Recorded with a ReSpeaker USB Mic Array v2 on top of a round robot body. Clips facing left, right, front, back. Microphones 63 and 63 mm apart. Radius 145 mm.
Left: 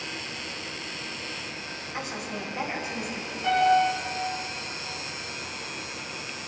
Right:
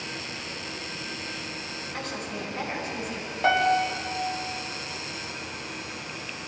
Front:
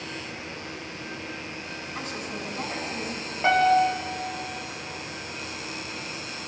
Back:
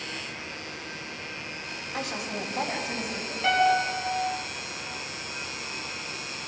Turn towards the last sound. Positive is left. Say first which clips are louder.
# left 1 dB, front 3 dB
turn(degrees=-65)